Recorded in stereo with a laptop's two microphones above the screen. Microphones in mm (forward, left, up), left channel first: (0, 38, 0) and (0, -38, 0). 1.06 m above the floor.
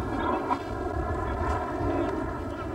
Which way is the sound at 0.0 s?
5° right (ahead or behind).